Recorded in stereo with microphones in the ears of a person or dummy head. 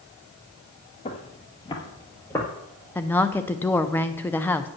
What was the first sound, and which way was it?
Footsteps, 30° left (ahead or behind).